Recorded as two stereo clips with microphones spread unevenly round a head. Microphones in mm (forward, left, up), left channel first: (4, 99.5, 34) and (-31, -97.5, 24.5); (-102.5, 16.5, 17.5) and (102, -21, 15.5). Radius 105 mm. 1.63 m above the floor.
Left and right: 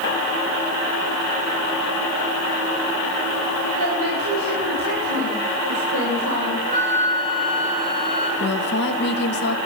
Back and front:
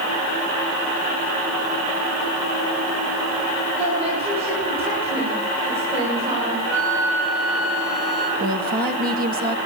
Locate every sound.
3.8 s a woman speaking: 75° right, 8.5 m
6.7 s a flute: 45° right, 5.5 m
8.4 s a woman speaking: 40° left, 2 m